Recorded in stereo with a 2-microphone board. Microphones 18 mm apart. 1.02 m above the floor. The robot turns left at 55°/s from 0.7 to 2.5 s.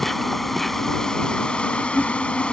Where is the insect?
165° left; by 2.5 s 65° left.